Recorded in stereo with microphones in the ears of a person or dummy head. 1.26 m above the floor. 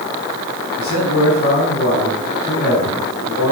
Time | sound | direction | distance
0.8 | a man speaking | 50° left (ahead or behind) | 3 m